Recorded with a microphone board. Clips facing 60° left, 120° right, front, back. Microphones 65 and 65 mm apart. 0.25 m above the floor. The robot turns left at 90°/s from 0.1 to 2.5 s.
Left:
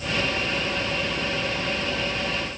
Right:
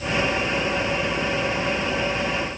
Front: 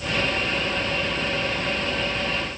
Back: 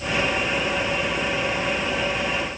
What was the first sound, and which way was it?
Only background noise.